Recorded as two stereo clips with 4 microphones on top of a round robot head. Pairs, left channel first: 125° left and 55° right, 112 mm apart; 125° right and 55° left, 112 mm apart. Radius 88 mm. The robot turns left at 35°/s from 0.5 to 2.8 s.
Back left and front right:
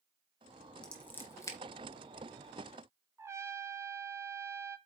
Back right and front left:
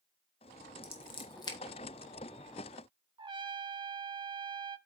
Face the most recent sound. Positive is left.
turn(degrees=10)